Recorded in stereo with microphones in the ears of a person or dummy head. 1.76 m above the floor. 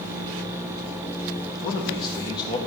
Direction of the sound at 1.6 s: 25° left (ahead or behind).